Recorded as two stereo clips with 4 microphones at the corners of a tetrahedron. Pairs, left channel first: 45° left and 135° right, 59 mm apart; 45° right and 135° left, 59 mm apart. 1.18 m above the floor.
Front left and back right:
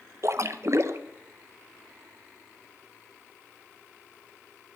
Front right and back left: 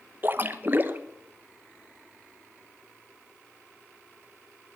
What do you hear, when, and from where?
0.2 s a splash: 170° right, 0.9 m